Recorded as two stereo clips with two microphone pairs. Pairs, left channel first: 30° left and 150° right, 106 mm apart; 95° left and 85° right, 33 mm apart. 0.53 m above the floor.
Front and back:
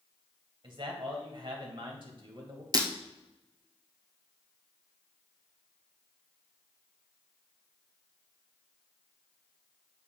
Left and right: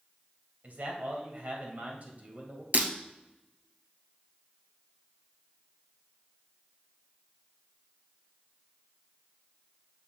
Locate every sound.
0.6 s a man speaking: 115° right, 2 m
2.7 s breaking glass: 100° right, 1.2 m